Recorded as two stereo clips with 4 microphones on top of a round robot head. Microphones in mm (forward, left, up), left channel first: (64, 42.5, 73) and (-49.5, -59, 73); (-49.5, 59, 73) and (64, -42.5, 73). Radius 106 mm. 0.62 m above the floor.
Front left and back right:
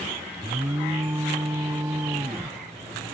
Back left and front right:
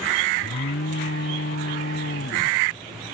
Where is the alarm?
150° left.